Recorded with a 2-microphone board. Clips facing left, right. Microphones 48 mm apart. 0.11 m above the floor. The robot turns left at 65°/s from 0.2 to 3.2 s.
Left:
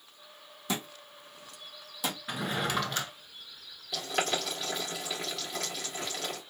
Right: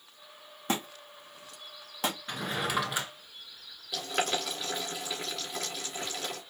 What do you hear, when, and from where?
0.7 s a thud: 40° right (ahead or behind), 2 m
2.3 s a drawer: 10° left (ahead or behind), 0.9 m; by 3.1 s 15° right (ahead or behind), 0.9 m
3.9 s boiling: 5° right (ahead or behind), 3 m